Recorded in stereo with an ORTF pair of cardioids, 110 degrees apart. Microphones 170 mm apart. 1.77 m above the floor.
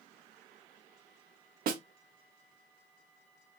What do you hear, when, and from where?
1.7 s a snare drum: 60° right, 1.1 m